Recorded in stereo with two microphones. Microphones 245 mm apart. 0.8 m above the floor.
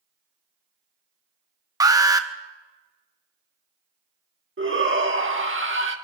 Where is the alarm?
15° right (ahead or behind), 0.9 m.